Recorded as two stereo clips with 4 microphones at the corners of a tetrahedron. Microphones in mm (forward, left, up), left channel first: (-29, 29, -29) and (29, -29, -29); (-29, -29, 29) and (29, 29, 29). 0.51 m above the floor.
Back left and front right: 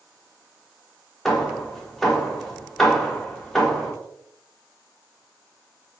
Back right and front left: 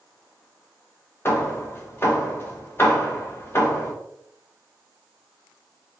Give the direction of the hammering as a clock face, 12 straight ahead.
5 o'clock.